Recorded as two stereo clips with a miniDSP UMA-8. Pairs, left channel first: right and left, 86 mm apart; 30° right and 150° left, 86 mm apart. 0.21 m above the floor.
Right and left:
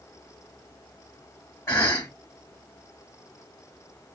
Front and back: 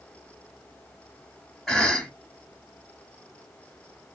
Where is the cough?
120° right, 1.4 m.